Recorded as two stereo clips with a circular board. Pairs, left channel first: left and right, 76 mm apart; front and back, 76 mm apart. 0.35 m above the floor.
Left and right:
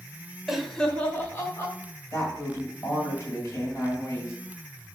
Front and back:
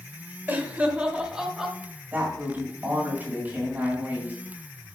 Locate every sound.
0.5 s laughter: 160° right, 1.0 m; by 1.8 s 100° left, 1.3 m
2.1 s a woman speaking: 125° left, 2 m